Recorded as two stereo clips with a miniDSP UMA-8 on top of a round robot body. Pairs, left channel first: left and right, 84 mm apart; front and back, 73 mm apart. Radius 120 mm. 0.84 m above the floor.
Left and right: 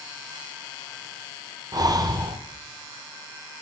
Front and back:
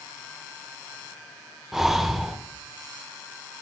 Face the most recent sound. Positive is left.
turn(degrees=-95)